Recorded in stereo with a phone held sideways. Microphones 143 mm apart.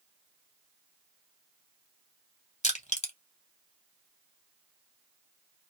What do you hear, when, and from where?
2.6 s crushing: 50° left (ahead or behind), 1.1 m